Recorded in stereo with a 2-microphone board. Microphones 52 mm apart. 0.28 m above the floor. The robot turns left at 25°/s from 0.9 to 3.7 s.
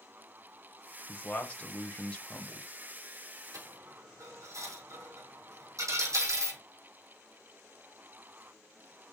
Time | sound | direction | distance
1.1 | a man speaking | 25° left (ahead or behind) | 1.0 m
3.5 | a dropped coin | 90° right | 3 m